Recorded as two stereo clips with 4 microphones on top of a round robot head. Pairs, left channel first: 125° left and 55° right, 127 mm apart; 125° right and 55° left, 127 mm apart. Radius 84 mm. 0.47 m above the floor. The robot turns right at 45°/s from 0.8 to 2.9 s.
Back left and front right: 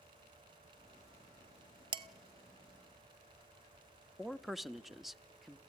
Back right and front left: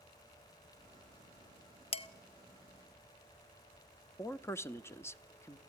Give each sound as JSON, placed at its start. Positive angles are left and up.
{"t": 1.9, "sound": "dishes clattering", "azimuth_deg": -100, "distance_m": 0.9}
{"t": 4.2, "sound": "a man speaking", "azimuth_deg": -145, "distance_m": 0.7}